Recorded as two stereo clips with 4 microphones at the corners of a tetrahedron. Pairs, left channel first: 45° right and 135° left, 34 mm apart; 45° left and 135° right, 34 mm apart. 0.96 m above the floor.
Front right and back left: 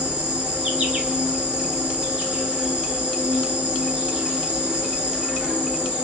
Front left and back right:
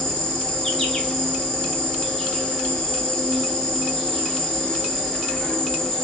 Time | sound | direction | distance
0.0 | an insect | 110° left | 1.8 m